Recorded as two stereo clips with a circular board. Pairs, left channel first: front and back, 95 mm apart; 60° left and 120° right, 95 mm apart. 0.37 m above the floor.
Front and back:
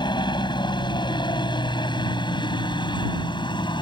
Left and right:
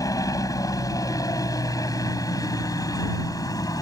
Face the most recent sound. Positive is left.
turn(degrees=20)